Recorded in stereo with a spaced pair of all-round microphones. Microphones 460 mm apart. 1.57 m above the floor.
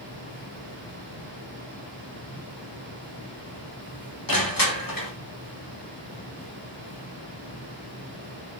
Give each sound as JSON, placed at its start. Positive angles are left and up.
{"t": 0.0, "sound": "a fan", "side_deg": 65, "distance_m": 4.5}
{"t": 4.3, "sound": "crushing", "side_deg": 45, "distance_m": 3.0}